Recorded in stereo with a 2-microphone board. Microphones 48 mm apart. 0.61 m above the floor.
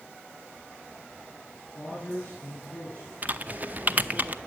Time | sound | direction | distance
1.8 | a man speaking | 25° left (ahead or behind) | 5 m
3.2 | typing on a keyboard | 35° right (ahead or behind) | 0.6 m